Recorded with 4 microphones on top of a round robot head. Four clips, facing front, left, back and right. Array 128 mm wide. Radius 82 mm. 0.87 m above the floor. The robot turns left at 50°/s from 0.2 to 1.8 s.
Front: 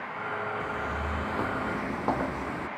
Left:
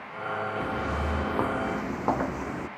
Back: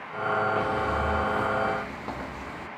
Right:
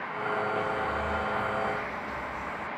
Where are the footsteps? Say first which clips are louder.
Even, back 6 dB; 110° left; by 2.7 s 65° left.